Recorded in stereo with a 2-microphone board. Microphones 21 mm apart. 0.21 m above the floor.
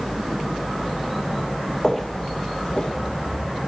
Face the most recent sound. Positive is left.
turn(degrees=35)  # may be behind; listen again after turning